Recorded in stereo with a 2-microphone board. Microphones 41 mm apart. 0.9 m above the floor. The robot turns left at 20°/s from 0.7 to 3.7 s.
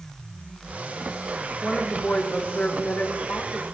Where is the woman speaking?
165° left, 2.5 m; by 3.6 s 125° left, 2.5 m.